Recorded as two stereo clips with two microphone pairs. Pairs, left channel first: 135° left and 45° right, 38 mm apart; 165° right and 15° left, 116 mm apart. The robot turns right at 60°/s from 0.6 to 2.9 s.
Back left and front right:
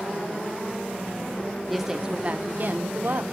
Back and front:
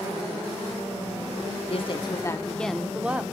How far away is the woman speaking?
About 1.2 m.